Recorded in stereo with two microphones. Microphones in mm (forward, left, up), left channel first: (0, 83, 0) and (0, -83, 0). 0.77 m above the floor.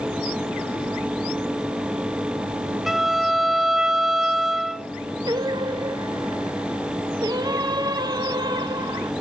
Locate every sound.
2.9 s a violin: centre (ahead or behind), 0.9 m
5.3 s singing: 25° right (ahead or behind), 0.6 m